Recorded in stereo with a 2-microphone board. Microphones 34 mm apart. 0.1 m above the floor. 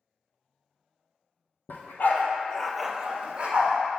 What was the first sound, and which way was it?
A dog barking, 75° left (ahead or behind).